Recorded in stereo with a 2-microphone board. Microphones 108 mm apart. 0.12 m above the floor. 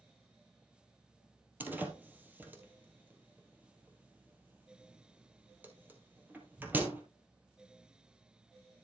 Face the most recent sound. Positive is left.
turn(degrees=-15)  # may be behind; listen again after turning